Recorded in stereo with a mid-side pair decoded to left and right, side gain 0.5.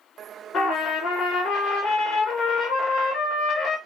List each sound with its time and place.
0.5 s a trumpet: 65° left, 1.2 m